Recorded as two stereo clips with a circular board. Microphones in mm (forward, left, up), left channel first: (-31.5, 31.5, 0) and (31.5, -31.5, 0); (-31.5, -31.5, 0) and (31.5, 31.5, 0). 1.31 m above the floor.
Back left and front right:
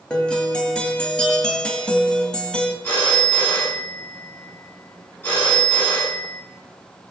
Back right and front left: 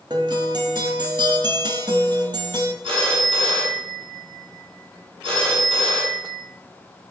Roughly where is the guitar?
Ahead left.